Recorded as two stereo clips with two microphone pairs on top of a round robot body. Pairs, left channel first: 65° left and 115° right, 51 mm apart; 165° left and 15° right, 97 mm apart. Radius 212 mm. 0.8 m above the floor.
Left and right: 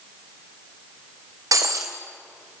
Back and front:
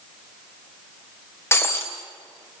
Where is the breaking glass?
125° right, 1.9 m.